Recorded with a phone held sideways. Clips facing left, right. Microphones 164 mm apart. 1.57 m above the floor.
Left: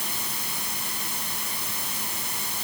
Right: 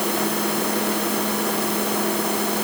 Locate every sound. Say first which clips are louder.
0.0 s a machine running: right 16 dB; 75° right (ahead or behind)